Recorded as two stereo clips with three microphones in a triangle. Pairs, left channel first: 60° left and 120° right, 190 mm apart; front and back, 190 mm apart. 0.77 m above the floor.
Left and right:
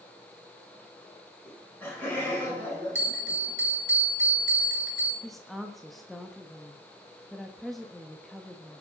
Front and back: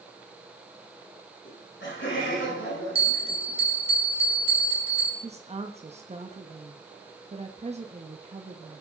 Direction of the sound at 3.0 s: 120° right.